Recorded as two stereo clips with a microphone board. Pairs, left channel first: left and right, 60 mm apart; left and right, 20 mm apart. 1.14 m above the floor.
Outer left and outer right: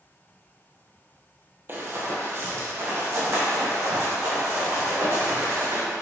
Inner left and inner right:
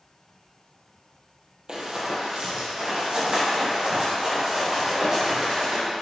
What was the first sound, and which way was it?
Running footsteps, 40° right (ahead or behind).